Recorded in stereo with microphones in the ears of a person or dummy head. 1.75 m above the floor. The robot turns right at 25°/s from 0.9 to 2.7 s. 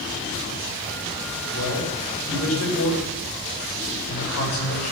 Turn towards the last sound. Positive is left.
turn(degrees=85)